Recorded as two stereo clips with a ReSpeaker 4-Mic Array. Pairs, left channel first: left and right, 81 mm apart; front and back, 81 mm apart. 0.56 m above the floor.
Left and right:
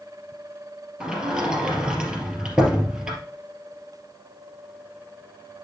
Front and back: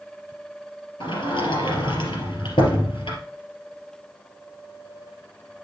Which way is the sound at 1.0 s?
10° right.